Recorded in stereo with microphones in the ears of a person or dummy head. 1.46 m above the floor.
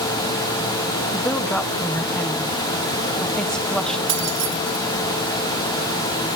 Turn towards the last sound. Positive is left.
turn(degrees=-65)  # may be behind; listen again after turning